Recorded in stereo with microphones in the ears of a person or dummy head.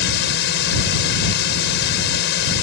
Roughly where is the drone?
Left.